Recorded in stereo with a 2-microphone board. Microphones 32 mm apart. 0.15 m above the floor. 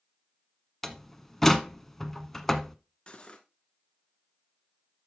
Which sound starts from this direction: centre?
A door slam, at 0.8 s.